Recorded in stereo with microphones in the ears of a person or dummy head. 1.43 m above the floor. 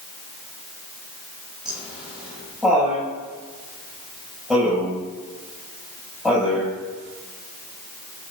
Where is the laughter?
5° right (ahead or behind), 9.5 m.